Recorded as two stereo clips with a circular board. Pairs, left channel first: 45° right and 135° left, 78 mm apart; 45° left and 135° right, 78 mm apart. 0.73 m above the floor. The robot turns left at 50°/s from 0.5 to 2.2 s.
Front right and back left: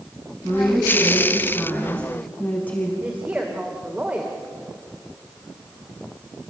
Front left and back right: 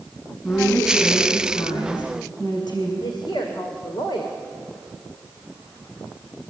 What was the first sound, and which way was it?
A woman speaking, 110° left.